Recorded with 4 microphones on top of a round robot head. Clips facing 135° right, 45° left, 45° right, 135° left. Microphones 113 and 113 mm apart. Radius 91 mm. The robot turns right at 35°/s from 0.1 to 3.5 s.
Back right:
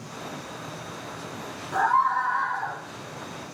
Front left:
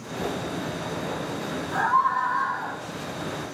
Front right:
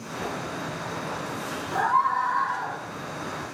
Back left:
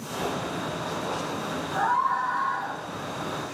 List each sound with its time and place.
1.7 s a scream: 50° right, 2 m; by 2.8 s 10° right, 2 m